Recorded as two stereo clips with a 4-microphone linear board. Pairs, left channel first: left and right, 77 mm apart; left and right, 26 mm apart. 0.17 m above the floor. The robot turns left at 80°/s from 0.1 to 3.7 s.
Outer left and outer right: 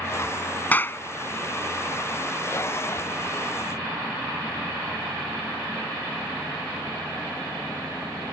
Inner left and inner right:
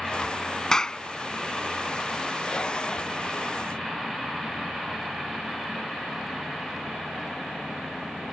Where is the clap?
20° left (ahead or behind); by 1.0 s 35° left (ahead or behind).